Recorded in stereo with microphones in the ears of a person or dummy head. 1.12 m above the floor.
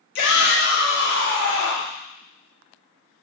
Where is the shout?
70° left (ahead or behind), 0.7 m; by 2.0 s 75° left (ahead or behind), 2 m.